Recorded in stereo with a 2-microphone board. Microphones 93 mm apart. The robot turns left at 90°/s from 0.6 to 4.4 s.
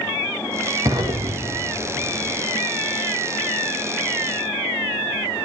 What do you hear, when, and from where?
0.8 s an explosion: 35° right (ahead or behind), 2 m; by 2.4 s 5° right (ahead or behind), 2 m